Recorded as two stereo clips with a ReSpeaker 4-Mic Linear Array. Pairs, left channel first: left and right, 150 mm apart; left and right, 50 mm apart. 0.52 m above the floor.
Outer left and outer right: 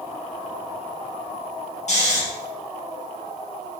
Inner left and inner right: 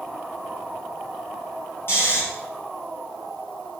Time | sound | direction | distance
1.9 | snoring | 50° left (ahead or behind) | 3.5 m